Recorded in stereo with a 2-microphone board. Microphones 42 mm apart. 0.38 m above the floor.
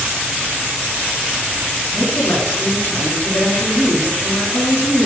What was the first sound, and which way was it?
A woman speaking, 80° left.